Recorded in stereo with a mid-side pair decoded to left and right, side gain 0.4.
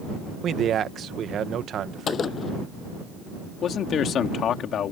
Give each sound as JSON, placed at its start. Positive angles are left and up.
{"t": 0.4, "sound": "a man speaking", "azimuth_deg": -65}
{"t": 2.1, "sound": "a gunshot", "azimuth_deg": 55}
{"t": 3.6, "sound": "a man speaking", "azimuth_deg": 70}